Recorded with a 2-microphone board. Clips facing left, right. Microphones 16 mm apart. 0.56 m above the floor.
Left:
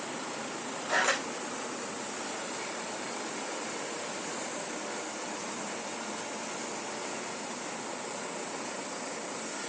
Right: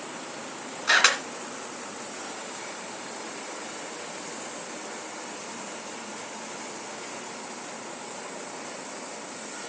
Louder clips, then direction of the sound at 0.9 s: Right 8 dB; 80° right.